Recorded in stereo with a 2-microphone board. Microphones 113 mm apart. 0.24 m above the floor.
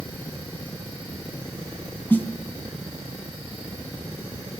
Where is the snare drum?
15° left (ahead or behind), 2 m.